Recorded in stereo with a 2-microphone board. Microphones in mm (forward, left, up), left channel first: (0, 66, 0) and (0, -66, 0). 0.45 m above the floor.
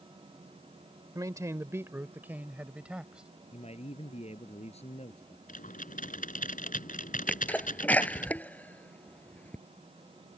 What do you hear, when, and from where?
1.1 s a man speaking: 25° right (ahead or behind); by 3.3 s 5° right (ahead or behind)
3.5 s a man speaking: 50° left (ahead or behind)
5.5 s typing on a keyboard: 85° left
7.3 s a sneeze: 10° left (ahead or behind)